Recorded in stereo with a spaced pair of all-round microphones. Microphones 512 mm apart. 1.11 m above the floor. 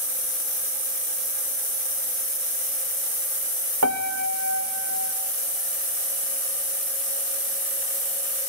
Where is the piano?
30° right (ahead or behind), 0.5 m.